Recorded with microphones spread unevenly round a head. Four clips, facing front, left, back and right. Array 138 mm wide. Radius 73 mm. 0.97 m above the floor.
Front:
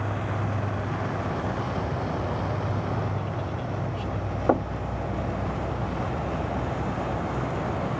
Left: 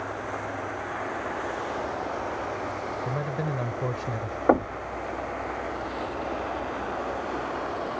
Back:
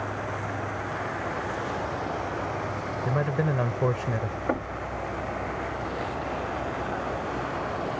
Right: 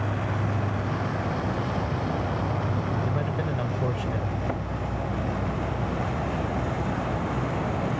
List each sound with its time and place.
0.0 s an insect: 65° right
3.0 s a man speaking: straight behind
4.5 s knocking: 60° left